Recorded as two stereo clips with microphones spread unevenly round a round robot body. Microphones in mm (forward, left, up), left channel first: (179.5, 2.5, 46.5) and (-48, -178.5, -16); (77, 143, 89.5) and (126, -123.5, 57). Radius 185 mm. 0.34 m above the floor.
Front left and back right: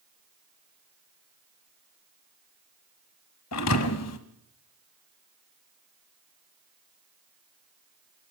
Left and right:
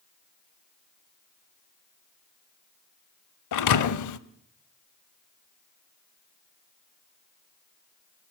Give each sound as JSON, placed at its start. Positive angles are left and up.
{"t": 3.5, "sound": "a thud", "azimuth_deg": 90, "distance_m": 1.1}